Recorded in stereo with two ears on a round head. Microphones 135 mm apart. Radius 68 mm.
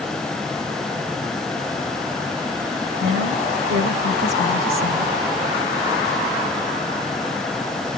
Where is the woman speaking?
65° right (ahead or behind), 3 m; by 5.2 s 60° right (ahead or behind), 2 m.